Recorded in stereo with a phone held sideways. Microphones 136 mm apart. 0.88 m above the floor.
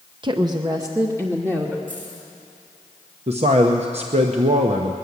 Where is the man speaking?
50° right (ahead or behind), 0.8 m.